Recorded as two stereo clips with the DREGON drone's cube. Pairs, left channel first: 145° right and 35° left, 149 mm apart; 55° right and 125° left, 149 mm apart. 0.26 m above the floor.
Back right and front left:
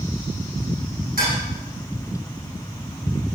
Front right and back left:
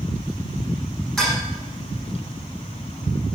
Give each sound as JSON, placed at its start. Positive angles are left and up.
{"t": 1.2, "sound": "dishes clattering", "azimuth_deg": 35, "distance_m": 8.0}